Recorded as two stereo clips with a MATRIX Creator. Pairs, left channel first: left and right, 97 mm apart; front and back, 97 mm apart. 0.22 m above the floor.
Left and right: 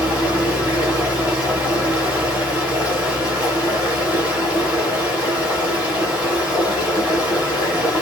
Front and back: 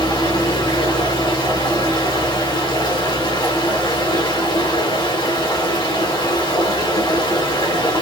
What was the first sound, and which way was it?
Running water, 15° right.